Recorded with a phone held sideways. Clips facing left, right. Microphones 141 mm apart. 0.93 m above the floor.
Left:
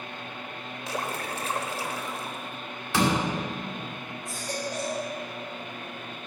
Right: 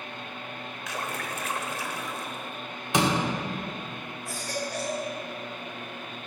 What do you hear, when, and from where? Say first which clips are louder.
0.9 s a splash: left 3 dB; 30° left (ahead or behind), 1.0 m
2.9 s a door slam: even; 20° right (ahead or behind), 2 m
4.2 s a baby crying: even; 20° left (ahead or behind), 3.5 m